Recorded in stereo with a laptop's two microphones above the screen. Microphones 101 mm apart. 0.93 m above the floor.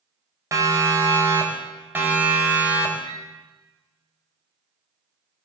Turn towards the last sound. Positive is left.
turn(degrees=-35)  # may be behind; listen again after turning